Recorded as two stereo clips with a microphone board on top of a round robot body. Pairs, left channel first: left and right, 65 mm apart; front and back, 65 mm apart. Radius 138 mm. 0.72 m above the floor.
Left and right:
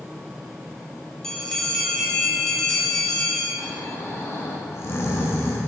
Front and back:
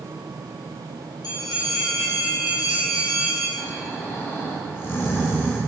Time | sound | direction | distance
1.2 | a bell | 10° left | 1.5 m
3.6 | snoring | 50° left | 1.4 m